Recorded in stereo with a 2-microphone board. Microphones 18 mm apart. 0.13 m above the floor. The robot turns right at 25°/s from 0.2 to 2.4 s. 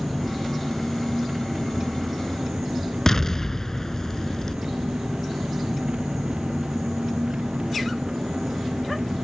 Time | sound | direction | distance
0.0 | an engine running | 175° right | ?
3.1 | an explosion | 30° left (ahead or behind) | ?